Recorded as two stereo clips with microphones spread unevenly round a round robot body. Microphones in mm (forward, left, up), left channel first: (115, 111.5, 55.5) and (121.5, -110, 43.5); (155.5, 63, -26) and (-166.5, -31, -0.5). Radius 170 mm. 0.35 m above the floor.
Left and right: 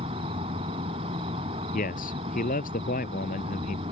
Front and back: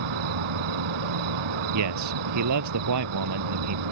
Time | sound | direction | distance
0.0 | an insect | 160° right | ?
1.7 | a man speaking | 155° left | ?